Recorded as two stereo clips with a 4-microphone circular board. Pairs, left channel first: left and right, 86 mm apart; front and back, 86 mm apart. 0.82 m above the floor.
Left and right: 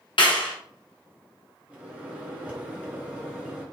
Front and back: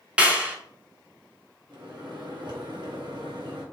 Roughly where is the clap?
Left.